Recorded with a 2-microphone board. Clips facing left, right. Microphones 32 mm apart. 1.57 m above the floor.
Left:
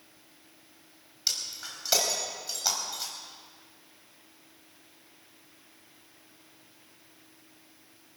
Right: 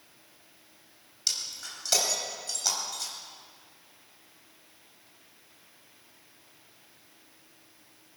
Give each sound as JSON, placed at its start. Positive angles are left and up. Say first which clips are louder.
{"t": 1.3, "sound": "breaking glass", "louder": "even", "side_deg": 10, "distance_m": 3.0}